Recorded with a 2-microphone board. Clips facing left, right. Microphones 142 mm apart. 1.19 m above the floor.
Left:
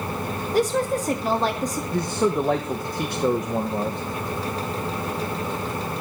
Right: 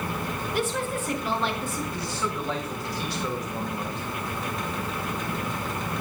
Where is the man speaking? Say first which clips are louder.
Left 9 dB; 50° left (ahead or behind), 1.2 m.